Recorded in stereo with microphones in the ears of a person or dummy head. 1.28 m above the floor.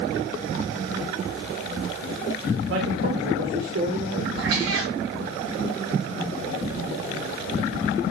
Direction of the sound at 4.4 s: 80° right.